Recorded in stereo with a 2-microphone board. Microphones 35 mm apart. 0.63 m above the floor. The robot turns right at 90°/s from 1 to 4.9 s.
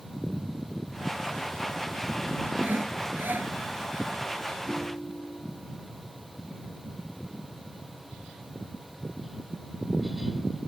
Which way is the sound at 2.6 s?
135° right.